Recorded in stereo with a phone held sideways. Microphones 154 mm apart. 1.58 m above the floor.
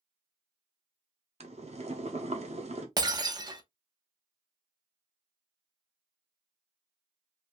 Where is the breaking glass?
25° right (ahead or behind), 0.8 m.